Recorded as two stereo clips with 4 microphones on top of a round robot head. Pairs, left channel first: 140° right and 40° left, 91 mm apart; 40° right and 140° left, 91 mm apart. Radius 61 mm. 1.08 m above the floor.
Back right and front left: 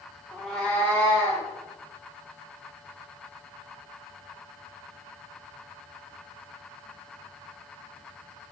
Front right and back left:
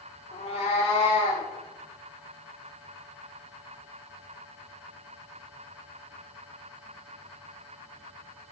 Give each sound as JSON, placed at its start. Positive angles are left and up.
{"t": 0.3, "sound": "a cat meowing", "azimuth_deg": -50, "distance_m": 1.3}